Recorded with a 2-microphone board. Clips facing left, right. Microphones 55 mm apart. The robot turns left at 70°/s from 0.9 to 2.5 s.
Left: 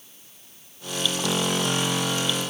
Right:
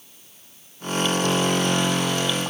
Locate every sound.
Only background noise.